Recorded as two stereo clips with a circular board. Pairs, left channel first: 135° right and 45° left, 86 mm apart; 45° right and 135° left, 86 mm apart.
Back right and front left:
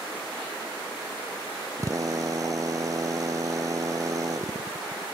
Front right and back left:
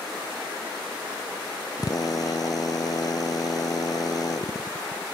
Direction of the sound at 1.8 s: 5° right.